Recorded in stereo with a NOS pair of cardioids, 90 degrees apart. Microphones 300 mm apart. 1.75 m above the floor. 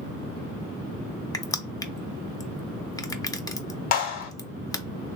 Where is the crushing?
15° left, 0.5 m.